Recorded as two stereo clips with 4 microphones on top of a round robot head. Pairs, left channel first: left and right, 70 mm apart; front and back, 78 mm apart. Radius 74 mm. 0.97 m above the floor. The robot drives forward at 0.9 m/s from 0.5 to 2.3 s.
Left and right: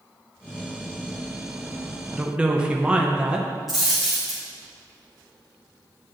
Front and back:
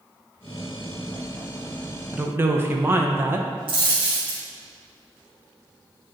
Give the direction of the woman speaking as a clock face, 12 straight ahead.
4 o'clock.